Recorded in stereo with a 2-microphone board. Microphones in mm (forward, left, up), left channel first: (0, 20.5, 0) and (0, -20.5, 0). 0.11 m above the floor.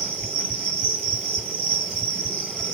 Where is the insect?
25° left (ahead or behind), 2 m.